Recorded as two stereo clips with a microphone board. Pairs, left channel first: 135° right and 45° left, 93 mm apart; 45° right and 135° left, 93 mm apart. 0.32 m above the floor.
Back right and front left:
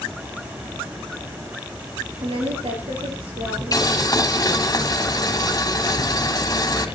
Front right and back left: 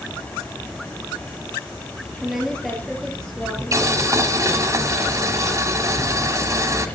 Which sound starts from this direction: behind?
Boiling, at 3.7 s.